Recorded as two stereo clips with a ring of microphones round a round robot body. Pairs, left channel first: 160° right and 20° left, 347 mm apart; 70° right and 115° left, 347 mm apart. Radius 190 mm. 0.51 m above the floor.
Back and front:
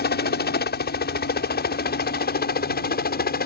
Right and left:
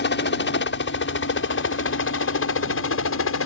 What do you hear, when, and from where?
0.0 s a helicopter: 110° right; by 3.5 s 105° right